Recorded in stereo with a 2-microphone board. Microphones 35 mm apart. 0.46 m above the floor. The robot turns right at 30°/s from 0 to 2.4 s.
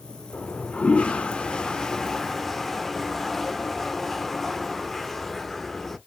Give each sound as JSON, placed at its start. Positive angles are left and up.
{"t": 0.3, "sound": "a toilet flushing", "azimuth_deg": 110, "distance_m": 0.6}